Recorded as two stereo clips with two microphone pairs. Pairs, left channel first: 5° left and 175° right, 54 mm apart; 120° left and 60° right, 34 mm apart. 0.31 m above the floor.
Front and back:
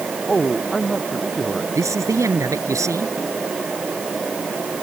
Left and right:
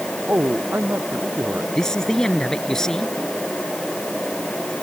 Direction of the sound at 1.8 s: 165° right.